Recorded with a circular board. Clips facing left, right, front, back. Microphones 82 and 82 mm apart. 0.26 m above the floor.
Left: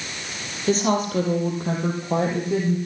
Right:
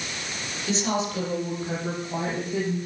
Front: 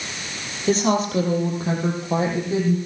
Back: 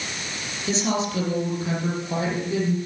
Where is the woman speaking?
40° left, 6 m; by 2.8 s 65° left, 8 m.